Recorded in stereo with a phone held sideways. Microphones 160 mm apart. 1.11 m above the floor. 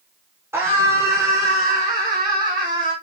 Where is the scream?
15° right (ahead or behind), 4.5 m; by 2.9 s 30° right (ahead or behind), 7 m.